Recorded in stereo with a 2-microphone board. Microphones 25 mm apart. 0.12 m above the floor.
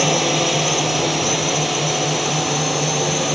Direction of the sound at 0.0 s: 5° right (ahead or behind).